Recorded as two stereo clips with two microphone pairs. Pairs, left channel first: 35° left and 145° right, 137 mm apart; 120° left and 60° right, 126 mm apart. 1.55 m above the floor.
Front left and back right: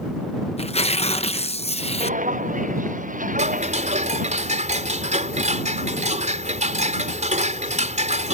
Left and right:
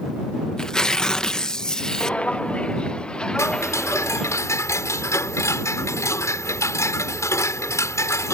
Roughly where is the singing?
No singing in this recording.